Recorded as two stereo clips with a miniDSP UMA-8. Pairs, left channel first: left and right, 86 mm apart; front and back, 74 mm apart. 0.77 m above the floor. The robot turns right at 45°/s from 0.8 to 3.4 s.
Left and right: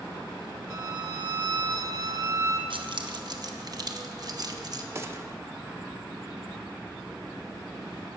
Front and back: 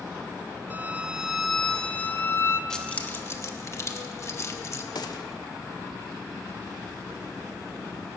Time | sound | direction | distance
0.7 | a violin | 120° right | 0.9 m
2.7 | keys jangling | 80° right | 0.8 m
5.0 | a gunshot | 30° right | 0.7 m